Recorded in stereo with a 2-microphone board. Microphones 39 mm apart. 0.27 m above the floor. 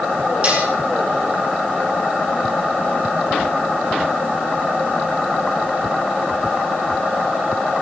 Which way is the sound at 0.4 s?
35° right (ahead or behind).